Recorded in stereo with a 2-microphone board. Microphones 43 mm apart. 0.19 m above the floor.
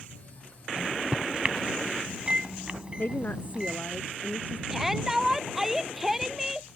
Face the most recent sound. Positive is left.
turn(degrees=-10)  # may be behind; listen again after turning